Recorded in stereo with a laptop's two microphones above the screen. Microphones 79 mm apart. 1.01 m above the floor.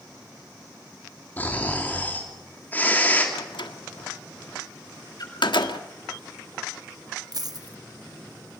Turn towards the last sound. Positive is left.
turn(degrees=-55)  # may be behind; listen again after turning